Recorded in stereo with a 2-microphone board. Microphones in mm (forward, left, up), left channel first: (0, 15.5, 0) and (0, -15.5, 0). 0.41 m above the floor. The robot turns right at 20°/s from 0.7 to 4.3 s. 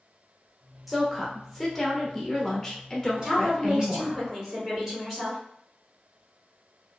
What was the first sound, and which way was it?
A woman speaking, 10° right.